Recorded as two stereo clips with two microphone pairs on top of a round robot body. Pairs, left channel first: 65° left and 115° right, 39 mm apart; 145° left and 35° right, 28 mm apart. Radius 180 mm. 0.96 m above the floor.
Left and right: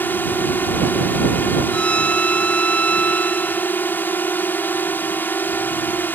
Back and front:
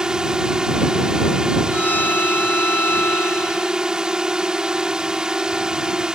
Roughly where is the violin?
Behind left.